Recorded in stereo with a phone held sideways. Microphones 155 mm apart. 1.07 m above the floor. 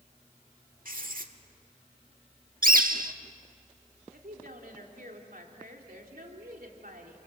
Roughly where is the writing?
Right.